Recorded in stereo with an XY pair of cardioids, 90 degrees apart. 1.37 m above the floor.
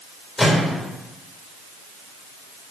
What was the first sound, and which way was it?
A microwave, 15° left.